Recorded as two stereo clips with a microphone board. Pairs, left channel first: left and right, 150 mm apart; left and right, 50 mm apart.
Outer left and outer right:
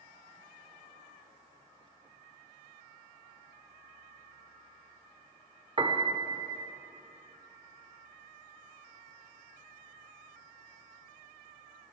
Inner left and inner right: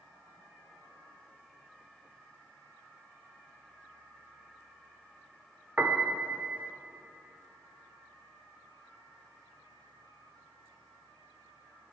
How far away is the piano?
About 0.7 m.